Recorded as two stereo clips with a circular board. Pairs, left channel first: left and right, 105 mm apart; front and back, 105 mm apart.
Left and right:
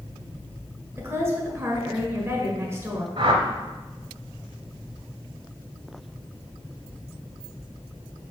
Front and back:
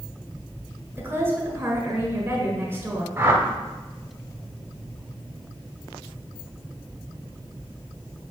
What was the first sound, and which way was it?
A woman speaking, 135° right.